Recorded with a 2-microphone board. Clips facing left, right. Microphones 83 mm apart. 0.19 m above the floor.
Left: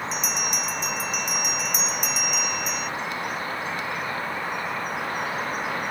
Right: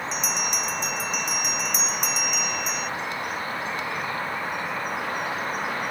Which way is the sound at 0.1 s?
5° left (ahead or behind).